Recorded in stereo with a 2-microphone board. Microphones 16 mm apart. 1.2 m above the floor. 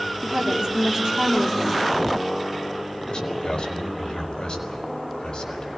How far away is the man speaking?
About 5 m.